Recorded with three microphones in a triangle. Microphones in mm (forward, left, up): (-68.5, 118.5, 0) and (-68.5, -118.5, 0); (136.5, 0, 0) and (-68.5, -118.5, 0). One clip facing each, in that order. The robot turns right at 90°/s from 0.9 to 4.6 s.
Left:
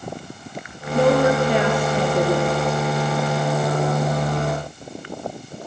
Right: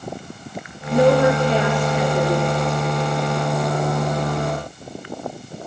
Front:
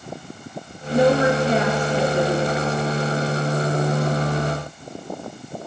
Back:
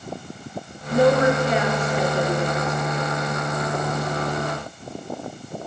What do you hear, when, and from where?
0.9 s a woman speaking: 30° right, 1.7 m; by 3.1 s 170° left, 1.7 m